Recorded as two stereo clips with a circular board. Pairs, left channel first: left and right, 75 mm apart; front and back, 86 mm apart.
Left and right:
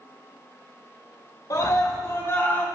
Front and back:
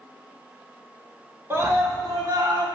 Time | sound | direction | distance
1.5 | a scream | 120° left | 1.4 m